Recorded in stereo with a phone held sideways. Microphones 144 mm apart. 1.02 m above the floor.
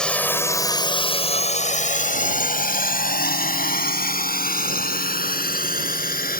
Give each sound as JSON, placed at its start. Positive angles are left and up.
{"t": 0.0, "sound": "a drone", "side_deg": 5}